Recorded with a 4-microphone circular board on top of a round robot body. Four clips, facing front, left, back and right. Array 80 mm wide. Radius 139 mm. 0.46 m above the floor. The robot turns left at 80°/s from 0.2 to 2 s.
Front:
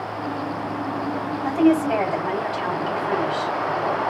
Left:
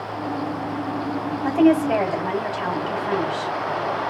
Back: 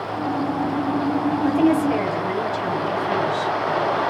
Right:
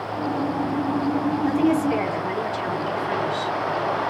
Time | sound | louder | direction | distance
1.4 | a woman speaking | left 5 dB, front 1 dB | 110° left | 3 m